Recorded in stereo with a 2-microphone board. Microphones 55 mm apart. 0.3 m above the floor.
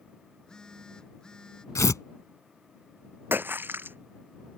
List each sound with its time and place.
0.3 s a phone buzzing: 15° left (ahead or behind)
1.8 s tearing paper: 75° left (ahead or behind)
3.3 s a splash: 40° right (ahead or behind)